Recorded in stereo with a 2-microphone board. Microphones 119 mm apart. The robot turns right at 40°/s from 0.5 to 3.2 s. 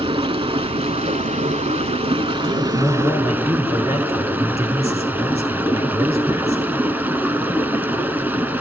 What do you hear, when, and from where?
0.0 s running water: 125° right, 0.9 m; by 8.6 s 15° right, 0.9 m
2.4 s a man speaking: 60° right, 6.5 m; by 6.6 s 30° right, 6.5 m